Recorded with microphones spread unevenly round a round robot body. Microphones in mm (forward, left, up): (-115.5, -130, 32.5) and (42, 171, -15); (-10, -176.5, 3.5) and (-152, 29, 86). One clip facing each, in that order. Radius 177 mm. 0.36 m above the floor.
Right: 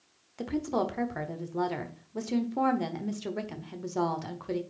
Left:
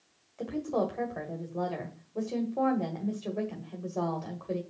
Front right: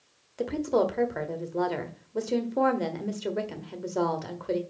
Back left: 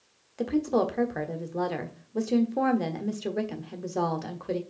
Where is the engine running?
I don't hear an engine running.